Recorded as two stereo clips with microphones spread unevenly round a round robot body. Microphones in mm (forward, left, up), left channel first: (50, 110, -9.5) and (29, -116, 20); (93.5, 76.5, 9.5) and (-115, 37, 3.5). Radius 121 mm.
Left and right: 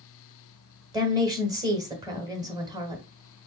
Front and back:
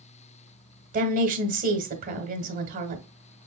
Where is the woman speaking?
170° right, 1.1 m.